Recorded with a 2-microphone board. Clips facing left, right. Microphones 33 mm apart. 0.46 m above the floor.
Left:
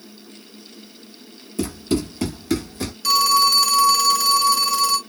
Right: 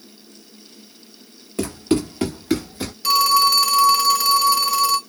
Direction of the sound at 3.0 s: 15° right (ahead or behind).